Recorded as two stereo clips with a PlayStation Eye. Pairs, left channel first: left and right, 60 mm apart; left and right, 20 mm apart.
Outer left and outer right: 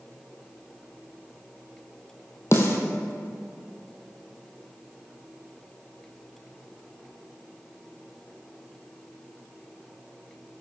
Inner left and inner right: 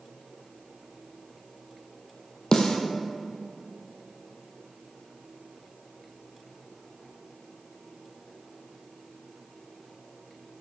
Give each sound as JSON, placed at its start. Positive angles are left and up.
{"t": 2.5, "sound": "a snare drum", "side_deg": 45, "distance_m": 1.8}